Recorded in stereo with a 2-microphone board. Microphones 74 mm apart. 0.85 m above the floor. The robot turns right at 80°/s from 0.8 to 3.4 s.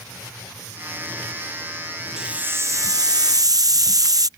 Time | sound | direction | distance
2.2 | a hiss | 170° right | ?